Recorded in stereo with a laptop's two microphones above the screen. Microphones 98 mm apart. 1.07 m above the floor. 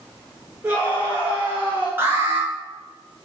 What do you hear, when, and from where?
0.6 s a scream: 15° right (ahead or behind), 2.5 m
2.0 s an alarm: 25° right (ahead or behind), 2.5 m